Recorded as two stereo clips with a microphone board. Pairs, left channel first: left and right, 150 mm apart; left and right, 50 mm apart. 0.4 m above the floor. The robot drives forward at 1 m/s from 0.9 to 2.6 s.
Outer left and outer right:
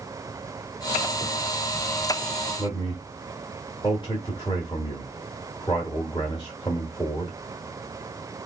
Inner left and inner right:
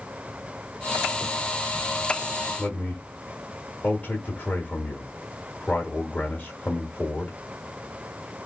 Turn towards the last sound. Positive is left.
turn(degrees=35)  # may be behind; listen again after turning